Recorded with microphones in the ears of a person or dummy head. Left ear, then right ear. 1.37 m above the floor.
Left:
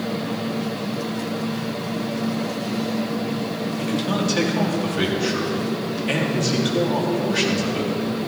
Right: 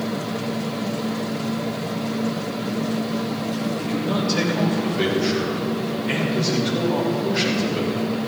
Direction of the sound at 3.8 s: 35° left (ahead or behind).